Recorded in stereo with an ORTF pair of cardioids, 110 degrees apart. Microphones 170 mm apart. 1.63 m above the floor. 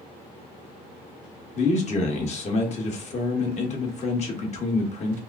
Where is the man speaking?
45° left, 1.5 m.